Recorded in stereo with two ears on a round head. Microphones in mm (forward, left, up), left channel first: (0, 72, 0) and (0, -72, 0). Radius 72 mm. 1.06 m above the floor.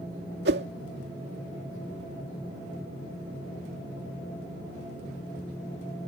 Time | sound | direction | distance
0.5 | a whoosh | 75° right (ahead or behind) | ?